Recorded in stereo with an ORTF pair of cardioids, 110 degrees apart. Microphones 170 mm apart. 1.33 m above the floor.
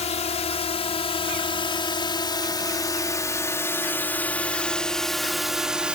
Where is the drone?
40° left; by 6.0 s 5° right.